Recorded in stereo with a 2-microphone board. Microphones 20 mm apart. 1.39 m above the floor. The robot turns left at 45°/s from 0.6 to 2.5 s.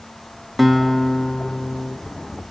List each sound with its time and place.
0.6 s a guitar: straight behind, 0.5 m; by 2.0 s 120° left, 0.5 m